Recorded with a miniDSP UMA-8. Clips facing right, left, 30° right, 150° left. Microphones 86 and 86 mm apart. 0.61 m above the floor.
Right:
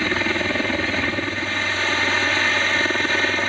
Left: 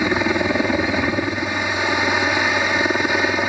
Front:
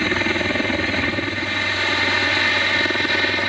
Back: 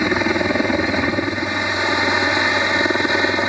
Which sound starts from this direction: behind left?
A helicopter, at 0.0 s.